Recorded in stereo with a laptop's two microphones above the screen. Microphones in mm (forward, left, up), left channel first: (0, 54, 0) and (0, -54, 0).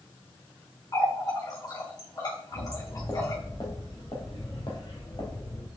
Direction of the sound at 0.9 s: 40° left (ahead or behind).